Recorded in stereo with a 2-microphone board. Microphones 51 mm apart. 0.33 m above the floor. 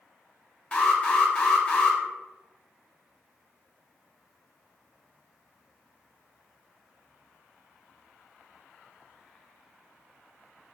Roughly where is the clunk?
No clunk in this recording.